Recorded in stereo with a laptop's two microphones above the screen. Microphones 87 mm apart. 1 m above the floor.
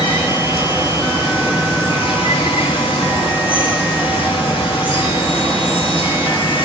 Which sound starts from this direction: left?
Running water, at 0.0 s.